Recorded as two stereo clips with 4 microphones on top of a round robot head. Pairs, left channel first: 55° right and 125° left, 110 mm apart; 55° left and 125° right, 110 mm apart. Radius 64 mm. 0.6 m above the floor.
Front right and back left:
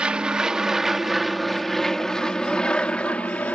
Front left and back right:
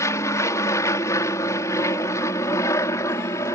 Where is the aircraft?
55° left; by 3.5 s 15° left.